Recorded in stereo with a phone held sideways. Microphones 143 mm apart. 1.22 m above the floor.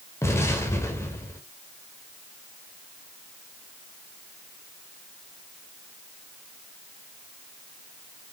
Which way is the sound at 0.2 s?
20° left (ahead or behind).